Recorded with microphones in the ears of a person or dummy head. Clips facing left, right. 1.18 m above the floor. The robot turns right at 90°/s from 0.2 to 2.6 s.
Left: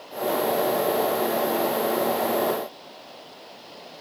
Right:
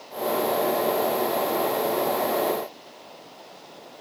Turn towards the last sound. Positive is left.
No sound to turn to.